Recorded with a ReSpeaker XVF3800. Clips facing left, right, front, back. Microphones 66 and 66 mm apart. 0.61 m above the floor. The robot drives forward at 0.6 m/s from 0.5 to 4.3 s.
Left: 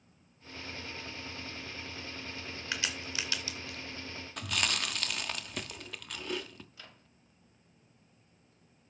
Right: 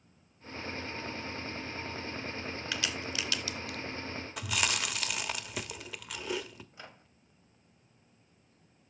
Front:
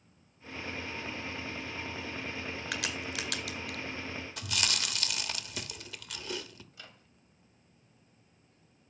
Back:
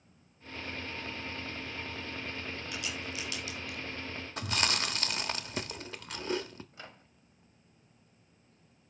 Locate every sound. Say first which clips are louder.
2.7 s a crack: even, front 5 dB; 20° left, 2.5 m; by 3.8 s 30° left, 1.7 m
4.4 s chewing: right 1 dB, back 5 dB; 170° right, 1.1 m
6.7 s a microwave: right 4 dB, back 4 dB; 145° right, 1.1 m